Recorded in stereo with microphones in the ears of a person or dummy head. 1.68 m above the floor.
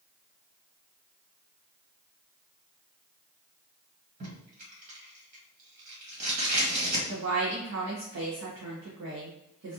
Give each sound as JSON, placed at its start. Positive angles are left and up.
{"t": 4.2, "sound": "tape being pulled", "side_deg": -50, "distance_m": 1.7}
{"t": 7.1, "sound": "a woman speaking", "side_deg": -65, "distance_m": 0.9}